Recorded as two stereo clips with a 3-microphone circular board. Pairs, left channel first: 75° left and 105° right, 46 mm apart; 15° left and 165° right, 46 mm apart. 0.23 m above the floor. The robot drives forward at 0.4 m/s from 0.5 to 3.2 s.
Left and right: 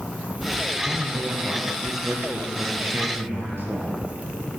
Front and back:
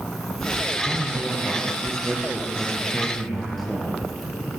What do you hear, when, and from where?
0.8 s a man speaking: 65° right, 5 m; by 4.1 s 75° right, 4.5 m